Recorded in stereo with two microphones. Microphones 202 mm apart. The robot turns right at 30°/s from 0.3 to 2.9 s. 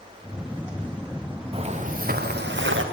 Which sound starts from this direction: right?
Footsteps, at 1.5 s.